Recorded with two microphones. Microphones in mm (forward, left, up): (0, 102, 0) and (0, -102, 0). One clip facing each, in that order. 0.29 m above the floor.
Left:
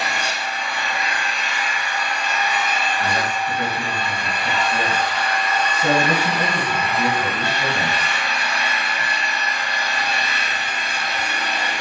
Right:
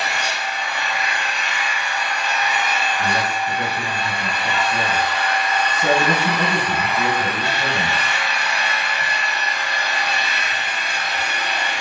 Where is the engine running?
60° left (ahead or behind), 1.2 m.